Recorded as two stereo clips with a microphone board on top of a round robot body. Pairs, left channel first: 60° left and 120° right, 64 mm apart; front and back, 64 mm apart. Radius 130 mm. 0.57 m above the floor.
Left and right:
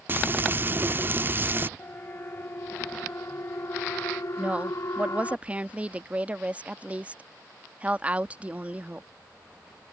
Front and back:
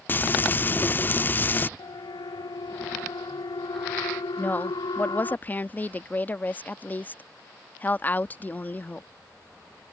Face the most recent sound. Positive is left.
turn(degrees=-55)